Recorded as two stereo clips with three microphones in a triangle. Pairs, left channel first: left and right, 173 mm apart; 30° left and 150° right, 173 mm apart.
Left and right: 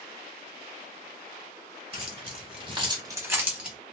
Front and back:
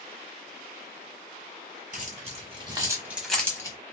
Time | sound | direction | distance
1.9 | keys jangling | 130° right | 1.5 m